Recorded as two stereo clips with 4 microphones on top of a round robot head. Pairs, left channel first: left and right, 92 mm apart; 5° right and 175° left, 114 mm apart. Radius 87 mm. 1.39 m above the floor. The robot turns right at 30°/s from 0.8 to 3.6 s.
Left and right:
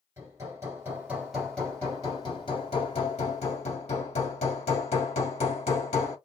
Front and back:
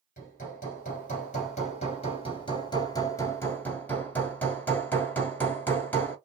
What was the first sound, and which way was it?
Hammering, 20° right.